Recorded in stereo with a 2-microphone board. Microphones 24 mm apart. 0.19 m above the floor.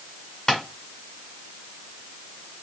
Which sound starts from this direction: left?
Tapping, at 0.5 s.